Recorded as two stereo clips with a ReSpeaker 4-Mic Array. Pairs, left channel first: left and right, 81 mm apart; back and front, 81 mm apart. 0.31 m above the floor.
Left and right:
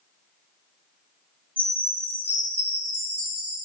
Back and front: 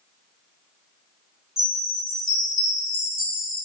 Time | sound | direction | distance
1.6 | a chime | 25° left | 1.1 m